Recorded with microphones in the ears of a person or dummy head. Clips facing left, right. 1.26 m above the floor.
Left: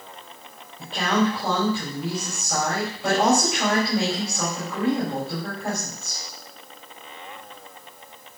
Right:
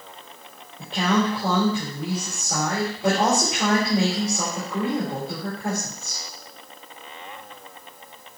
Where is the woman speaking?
20° right (ahead or behind), 4.5 m.